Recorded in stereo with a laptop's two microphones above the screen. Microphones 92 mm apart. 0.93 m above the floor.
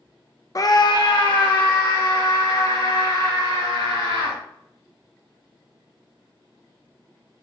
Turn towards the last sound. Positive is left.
turn(degrees=55)  # may be behind; listen again after turning